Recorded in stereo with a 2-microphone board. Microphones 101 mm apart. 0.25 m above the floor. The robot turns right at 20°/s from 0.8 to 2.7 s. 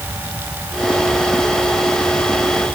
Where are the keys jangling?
No keys jangling in this recording.